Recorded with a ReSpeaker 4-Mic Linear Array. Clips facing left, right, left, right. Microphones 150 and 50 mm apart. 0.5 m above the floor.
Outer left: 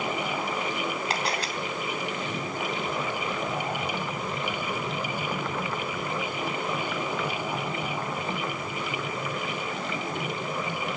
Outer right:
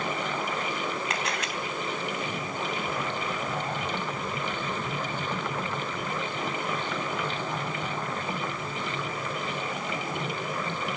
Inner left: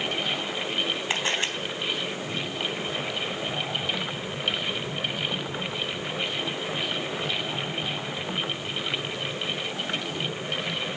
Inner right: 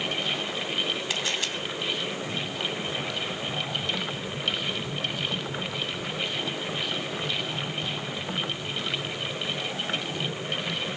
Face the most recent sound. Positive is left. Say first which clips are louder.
# outer left 2 dB, inner left 3 dB
turn(degrees=30)  # may be behind; listen again after turning